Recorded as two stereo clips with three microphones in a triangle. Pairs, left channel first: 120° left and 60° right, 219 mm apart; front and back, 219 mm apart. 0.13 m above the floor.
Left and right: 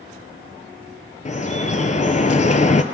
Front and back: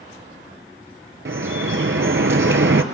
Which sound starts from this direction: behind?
Dripping, at 1.2 s.